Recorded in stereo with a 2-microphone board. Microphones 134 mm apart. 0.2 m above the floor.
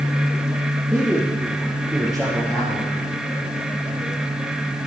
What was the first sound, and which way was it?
A man speaking, 5° right (ahead or behind).